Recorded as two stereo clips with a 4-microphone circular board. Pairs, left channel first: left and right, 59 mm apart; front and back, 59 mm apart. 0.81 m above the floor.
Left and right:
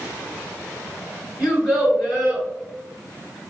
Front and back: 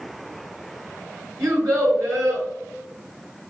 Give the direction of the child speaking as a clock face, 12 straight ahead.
6 o'clock.